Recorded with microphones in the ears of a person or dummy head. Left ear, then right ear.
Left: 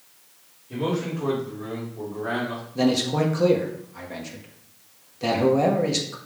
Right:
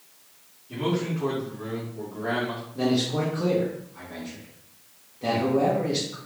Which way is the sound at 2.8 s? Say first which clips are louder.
Left 3 dB; 75° left (ahead or behind).